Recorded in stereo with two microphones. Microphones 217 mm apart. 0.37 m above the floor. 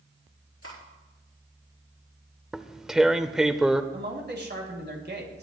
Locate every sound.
0.6 s cutlery clinking: 80° left, 4.5 m
2.5 s tearing paper: centre (ahead or behind), 0.6 m
3.9 s a man speaking: 50° right (ahead or behind), 2.5 m